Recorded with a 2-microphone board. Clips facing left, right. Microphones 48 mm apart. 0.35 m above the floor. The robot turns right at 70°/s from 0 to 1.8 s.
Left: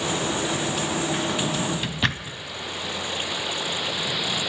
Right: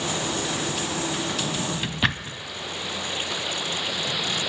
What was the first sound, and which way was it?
A drawer, 20° left (ahead or behind).